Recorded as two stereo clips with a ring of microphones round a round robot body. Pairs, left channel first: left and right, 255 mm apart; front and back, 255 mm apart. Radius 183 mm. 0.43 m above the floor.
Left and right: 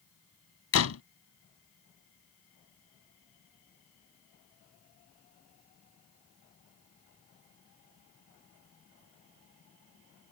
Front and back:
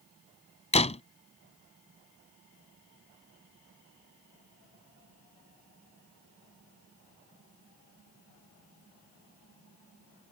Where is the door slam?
65° left.